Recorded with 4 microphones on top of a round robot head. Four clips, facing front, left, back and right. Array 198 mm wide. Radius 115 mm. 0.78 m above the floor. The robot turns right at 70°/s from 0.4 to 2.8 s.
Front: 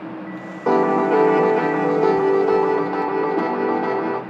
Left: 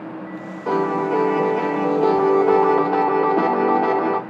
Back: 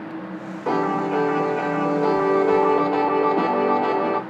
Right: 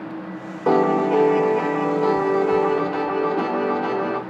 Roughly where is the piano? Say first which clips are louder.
Right 3 dB, front 5 dB; ahead right.